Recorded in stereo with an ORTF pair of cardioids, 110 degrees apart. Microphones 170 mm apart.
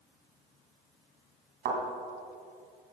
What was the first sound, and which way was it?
A thud, 70° right.